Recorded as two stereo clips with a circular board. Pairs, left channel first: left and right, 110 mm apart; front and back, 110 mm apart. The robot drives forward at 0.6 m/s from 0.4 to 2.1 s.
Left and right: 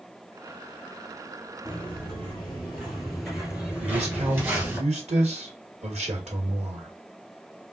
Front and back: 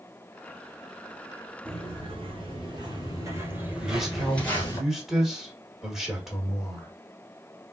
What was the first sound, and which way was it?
Footsteps, 165° left.